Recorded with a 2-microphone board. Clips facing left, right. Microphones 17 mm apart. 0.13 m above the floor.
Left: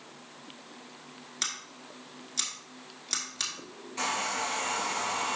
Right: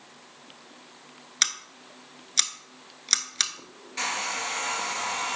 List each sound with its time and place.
1.4 s scissors: 50° right (ahead or behind), 0.9 m
4.0 s a hair dryer: 25° right (ahead or behind), 1.6 m